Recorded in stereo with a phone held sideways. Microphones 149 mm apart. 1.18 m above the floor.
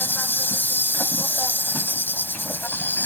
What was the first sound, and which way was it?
An insect, 15° left (ahead or behind).